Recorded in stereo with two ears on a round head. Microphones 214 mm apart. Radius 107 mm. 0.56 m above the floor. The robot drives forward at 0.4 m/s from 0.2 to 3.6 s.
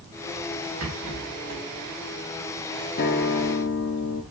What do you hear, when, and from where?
0.8 s a rattle: 65° right (ahead or behind), 3 m
3.0 s a guitar: 40° left (ahead or behind), 0.5 m; by 4.2 s 45° left (ahead or behind), 0.5 m